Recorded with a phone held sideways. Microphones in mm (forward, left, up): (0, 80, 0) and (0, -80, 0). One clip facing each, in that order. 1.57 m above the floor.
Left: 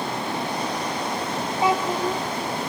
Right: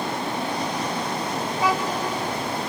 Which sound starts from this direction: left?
A child speaking, at 1.6 s.